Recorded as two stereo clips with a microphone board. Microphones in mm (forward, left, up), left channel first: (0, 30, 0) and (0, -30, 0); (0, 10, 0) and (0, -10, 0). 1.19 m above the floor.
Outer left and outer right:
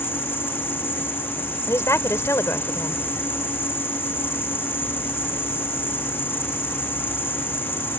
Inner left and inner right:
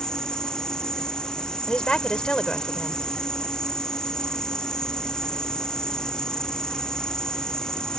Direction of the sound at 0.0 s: 40° left (ahead or behind).